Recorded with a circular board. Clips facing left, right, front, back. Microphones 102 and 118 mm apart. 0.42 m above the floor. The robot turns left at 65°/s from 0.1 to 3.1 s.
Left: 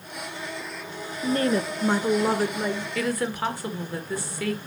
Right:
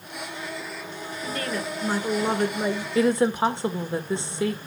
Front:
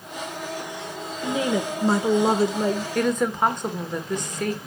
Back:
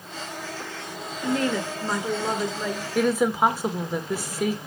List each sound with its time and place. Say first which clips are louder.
1.2 s a woman speaking: left 7 dB, front 1 dB; 80° left, 1.1 m; by 2.9 s 25° right, 1.1 m
3.0 s a woman speaking: right 9 dB, back 4 dB; 100° right, 1.3 m; by 4.6 s 105° right, 1.3 m